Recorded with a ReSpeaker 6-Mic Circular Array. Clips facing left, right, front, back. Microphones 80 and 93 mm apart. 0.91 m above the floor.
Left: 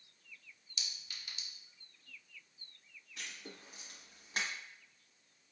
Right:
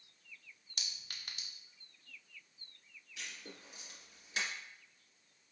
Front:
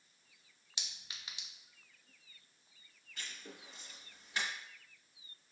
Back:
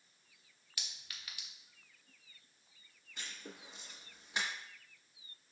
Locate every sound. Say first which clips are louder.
0.8 s a clink: even, even; 60° right, 0.5 m
3.2 s writing: left 1 dB, back 1 dB; 115° left, 1.5 m